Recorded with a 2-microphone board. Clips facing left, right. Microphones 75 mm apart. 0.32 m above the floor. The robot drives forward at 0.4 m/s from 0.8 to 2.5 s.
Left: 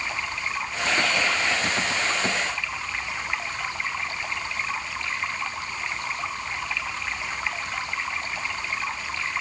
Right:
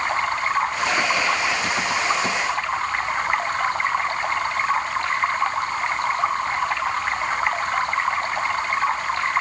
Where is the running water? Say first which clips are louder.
Right 8 dB; 60° right (ahead or behind); by 9.4 s 55° right (ahead or behind).